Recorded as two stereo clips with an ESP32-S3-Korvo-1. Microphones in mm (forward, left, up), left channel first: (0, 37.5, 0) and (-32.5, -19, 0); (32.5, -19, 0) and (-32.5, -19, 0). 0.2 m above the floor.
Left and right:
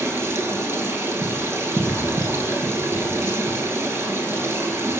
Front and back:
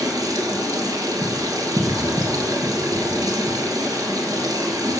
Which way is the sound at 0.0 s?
170° right.